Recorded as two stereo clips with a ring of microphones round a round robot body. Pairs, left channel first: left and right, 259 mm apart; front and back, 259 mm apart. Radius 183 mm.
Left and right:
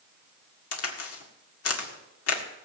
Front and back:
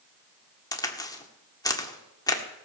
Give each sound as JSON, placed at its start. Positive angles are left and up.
{"t": 0.7, "sound": "a crack", "azimuth_deg": 75, "distance_m": 1.8}